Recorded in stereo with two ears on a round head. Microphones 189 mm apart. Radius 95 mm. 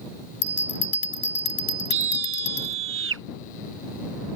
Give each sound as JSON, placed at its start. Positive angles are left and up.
{"t": 0.4, "sound": "a bell", "side_deg": 55}
{"t": 1.9, "sound": "a scream", "side_deg": -70}